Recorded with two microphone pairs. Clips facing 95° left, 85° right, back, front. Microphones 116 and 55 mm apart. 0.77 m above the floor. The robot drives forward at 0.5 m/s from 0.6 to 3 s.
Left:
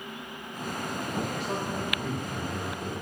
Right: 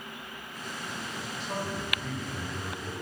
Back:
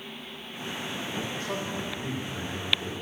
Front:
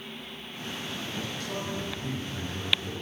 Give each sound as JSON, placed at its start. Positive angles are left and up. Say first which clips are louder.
{"t": 1.4, "sound": "a man speaking", "louder": "left 3 dB, back 1 dB", "azimuth_deg": 125, "distance_m": 1.8}